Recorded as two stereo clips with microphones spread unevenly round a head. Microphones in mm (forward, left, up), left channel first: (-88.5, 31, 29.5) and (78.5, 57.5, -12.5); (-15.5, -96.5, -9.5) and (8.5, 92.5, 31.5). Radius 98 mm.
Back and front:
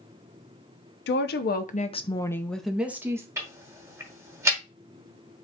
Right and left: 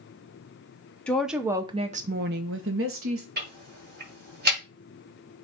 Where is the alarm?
No alarm in this recording.